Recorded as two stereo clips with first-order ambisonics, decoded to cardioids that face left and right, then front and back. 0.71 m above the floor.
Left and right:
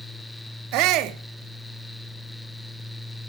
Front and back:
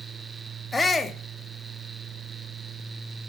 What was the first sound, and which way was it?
A shout, 80° right.